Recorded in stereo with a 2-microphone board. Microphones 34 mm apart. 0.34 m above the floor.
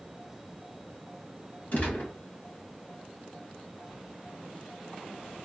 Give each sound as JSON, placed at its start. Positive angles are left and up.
{"t": 1.7, "sound": "a gunshot", "side_deg": 50, "distance_m": 1.5}